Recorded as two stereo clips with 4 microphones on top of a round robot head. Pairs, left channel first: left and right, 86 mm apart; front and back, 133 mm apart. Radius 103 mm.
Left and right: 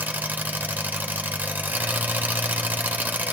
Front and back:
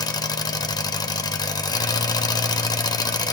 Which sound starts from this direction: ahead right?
An engine running, at 0.0 s.